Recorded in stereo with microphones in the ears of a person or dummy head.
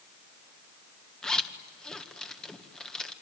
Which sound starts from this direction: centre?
A zipper, at 1.2 s.